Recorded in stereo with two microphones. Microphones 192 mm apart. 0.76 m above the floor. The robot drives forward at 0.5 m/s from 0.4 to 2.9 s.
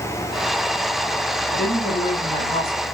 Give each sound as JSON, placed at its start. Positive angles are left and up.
{"t": 1.5, "sound": "a woman speaking", "side_deg": 50, "distance_m": 4.0}